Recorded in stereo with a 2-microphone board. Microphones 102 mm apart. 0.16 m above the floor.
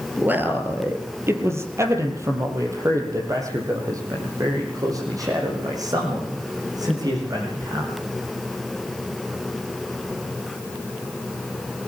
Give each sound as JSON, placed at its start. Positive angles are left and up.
{"t": 0.2, "sound": "a man speaking", "side_deg": -15, "distance_m": 3.5}